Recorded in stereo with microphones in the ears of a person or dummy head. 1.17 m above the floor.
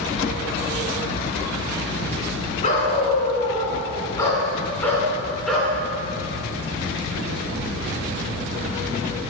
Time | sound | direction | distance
2.6 | a dog barking | 40° left (ahead or behind) | 3.5 m